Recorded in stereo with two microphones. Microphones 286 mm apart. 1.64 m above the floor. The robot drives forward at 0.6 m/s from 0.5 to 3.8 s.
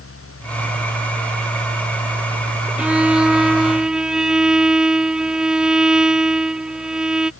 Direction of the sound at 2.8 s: 5° right (ahead or behind).